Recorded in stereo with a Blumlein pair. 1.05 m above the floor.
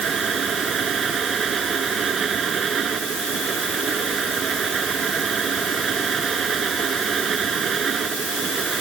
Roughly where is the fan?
Ahead right.